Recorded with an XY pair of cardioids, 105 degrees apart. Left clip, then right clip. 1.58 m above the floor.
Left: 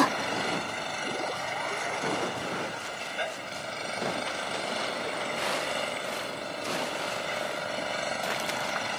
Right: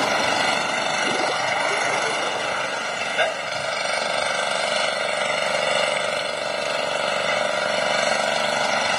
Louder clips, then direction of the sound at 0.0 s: Right 7 dB; 65° right.